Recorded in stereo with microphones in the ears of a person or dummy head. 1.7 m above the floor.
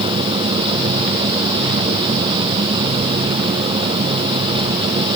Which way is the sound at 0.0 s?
25° right (ahead or behind).